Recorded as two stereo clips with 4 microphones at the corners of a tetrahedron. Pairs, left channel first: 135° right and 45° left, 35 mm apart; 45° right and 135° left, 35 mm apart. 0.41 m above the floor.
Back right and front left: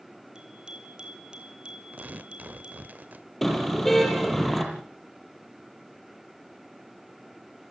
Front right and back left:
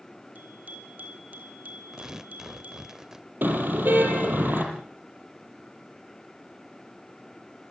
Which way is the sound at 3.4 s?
140° left.